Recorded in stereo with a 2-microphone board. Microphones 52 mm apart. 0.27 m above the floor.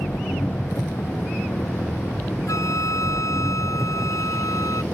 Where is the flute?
80° left.